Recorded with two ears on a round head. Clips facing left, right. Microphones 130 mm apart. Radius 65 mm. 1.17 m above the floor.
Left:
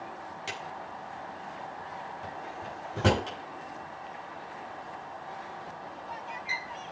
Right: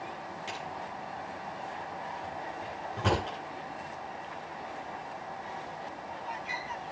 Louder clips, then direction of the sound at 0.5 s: Right 1 dB; 70° left (ahead or behind).